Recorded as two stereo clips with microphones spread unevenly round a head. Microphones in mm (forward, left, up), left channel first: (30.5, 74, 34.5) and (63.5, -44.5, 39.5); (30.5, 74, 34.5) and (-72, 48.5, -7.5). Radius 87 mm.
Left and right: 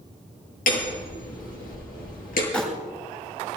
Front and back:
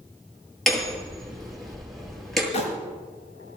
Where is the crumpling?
25° left, 6 m.